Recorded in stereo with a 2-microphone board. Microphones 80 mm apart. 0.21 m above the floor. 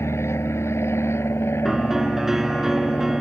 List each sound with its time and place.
0.0 s an aircraft: 35° left (ahead or behind); by 3.2 s 30° left (ahead or behind)
1.6 s a piano: 5° right (ahead or behind)